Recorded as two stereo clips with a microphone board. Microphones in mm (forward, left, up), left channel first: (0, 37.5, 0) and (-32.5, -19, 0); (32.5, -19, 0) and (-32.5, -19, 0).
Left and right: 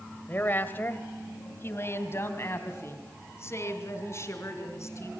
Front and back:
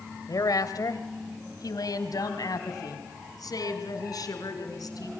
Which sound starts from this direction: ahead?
A woman speaking, at 0.3 s.